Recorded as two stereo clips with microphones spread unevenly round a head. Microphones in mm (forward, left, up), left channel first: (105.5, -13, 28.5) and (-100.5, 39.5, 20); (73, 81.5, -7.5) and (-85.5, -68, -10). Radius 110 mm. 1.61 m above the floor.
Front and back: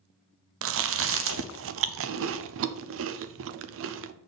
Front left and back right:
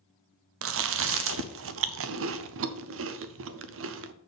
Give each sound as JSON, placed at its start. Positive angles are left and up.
{"t": 0.6, "sound": "chewing", "azimuth_deg": -165, "distance_m": 0.6}